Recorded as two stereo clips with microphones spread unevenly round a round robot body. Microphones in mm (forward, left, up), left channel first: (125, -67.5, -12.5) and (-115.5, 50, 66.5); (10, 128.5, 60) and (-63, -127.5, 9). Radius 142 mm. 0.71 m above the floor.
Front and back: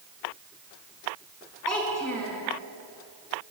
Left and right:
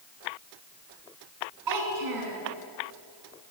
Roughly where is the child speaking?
Right.